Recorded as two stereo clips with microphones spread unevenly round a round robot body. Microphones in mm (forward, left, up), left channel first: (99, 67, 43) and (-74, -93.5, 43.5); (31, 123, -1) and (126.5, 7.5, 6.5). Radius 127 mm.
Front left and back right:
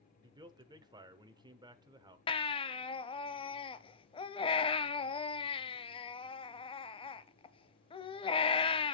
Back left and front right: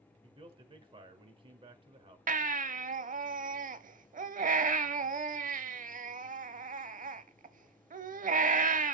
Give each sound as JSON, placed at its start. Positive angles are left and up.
{"t": 0.2, "sound": "a man speaking", "azimuth_deg": -80, "distance_m": 0.9}
{"t": 2.3, "sound": "a baby crying", "azimuth_deg": -25, "distance_m": 0.8}